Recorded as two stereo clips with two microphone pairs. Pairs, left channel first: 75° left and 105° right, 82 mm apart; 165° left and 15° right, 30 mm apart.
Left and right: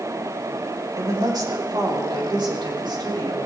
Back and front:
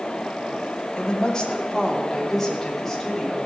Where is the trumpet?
I don't hear a trumpet.